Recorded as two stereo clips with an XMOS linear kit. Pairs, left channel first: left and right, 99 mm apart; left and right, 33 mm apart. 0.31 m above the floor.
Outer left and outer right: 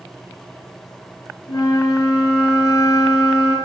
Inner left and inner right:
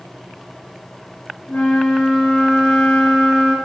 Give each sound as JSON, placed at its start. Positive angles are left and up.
{"t": 1.5, "sound": "a flute", "side_deg": 30, "distance_m": 2.5}